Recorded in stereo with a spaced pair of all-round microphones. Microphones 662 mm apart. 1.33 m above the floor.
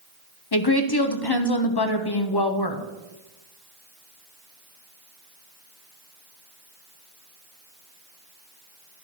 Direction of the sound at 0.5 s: 35° left (ahead or behind).